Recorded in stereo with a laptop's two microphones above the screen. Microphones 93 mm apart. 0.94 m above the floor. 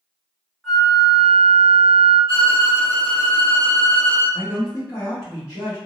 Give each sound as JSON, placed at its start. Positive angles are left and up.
{"t": 0.6, "sound": "a flute", "side_deg": 0, "distance_m": 1.0}
{"t": 2.3, "sound": "a violin", "side_deg": 60, "distance_m": 1.6}
{"t": 4.3, "sound": "a man speaking", "side_deg": 35, "distance_m": 1.2}